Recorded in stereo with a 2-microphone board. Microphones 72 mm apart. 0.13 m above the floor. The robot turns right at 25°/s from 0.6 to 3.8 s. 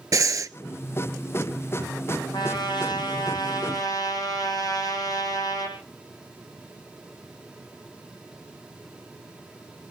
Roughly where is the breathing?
Right.